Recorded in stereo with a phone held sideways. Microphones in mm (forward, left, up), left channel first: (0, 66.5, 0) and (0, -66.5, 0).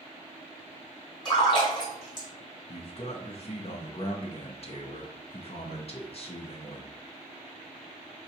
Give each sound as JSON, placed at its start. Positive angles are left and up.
{"t": 1.2, "sound": "a splash", "side_deg": 35, "distance_m": 2.5}
{"t": 2.7, "sound": "a man speaking", "side_deg": 50, "distance_m": 0.6}